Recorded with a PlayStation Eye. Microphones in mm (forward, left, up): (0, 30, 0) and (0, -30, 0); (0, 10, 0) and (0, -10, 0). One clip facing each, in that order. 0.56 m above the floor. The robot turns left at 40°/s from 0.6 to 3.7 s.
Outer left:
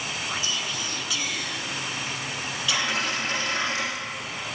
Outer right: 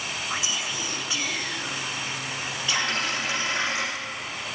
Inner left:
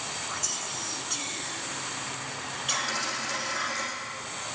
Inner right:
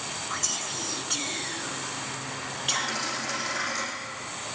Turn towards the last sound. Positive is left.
turn(degrees=-30)